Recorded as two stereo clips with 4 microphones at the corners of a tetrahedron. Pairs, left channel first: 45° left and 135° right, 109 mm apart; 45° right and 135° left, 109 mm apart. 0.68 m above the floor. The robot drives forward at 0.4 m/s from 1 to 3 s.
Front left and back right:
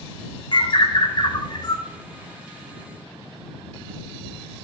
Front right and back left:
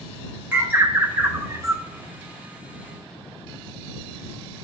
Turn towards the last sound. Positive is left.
turn(degrees=115)